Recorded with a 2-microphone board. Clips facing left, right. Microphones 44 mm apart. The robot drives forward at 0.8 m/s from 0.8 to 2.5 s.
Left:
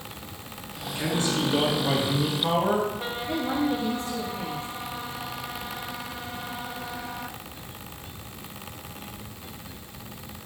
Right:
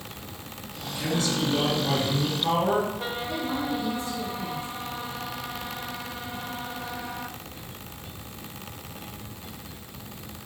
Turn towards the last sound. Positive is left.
turn(degrees=60)  # may be behind; listen again after turning